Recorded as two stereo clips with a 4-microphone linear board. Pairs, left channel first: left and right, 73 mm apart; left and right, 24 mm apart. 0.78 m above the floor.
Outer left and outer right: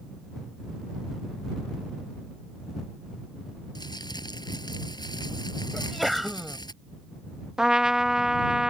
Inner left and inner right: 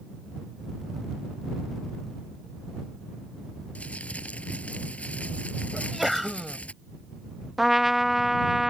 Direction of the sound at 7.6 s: 10° right (ahead or behind).